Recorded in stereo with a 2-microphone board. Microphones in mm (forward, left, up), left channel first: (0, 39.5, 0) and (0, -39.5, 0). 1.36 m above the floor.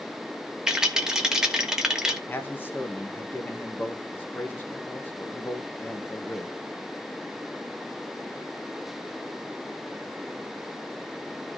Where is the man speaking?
25° left (ahead or behind), 1.6 m.